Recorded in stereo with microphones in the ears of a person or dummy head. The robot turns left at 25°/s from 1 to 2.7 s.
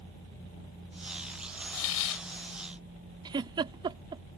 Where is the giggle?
20° right (ahead or behind).